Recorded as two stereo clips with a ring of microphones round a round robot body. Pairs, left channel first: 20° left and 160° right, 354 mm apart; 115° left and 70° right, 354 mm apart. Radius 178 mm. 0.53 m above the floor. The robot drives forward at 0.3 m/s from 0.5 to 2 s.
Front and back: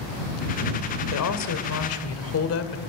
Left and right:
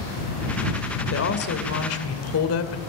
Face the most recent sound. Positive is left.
turn(degrees=70)